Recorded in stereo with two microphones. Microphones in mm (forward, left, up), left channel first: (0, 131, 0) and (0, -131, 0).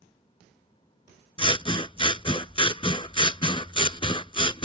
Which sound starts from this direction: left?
Scissors, at 1.4 s.